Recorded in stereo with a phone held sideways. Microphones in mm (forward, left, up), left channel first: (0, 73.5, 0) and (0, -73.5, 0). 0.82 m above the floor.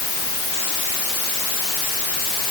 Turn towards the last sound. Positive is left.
No sound to turn to.